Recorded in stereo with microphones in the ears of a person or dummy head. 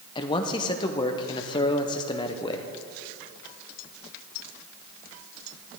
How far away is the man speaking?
About 0.7 m.